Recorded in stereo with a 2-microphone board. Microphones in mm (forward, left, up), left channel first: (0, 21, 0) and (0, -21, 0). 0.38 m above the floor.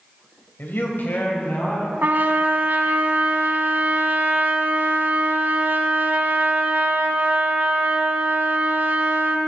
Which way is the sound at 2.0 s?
50° right (ahead or behind).